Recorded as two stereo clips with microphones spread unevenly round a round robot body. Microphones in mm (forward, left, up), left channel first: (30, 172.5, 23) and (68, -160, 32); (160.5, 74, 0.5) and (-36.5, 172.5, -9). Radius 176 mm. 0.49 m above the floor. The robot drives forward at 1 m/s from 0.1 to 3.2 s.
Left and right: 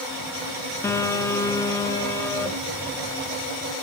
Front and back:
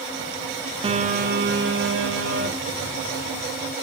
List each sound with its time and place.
0.8 s a phone buzzing: 165° left, 0.9 m; by 3.7 s straight behind, 3 m